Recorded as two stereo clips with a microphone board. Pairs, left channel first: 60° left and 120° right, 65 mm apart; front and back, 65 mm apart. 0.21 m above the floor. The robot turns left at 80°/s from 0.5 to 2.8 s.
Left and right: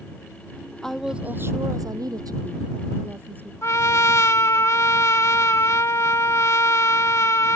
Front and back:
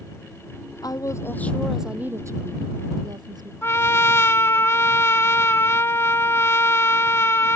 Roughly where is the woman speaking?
Ahead.